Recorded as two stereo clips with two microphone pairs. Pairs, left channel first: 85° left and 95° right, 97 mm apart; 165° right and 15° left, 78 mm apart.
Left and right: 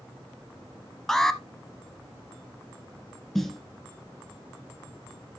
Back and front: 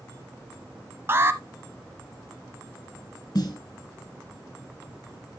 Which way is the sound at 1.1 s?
Straight ahead.